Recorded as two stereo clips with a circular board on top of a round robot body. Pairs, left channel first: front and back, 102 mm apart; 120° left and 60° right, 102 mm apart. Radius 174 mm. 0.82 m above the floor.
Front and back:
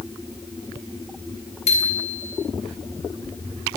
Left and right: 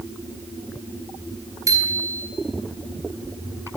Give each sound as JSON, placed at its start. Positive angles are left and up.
{"t": 1.7, "sound": "a bicycle bell", "azimuth_deg": 0, "distance_m": 7.0}